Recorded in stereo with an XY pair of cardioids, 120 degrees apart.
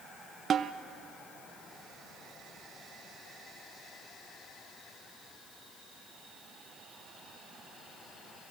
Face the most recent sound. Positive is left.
turn(degrees=-45)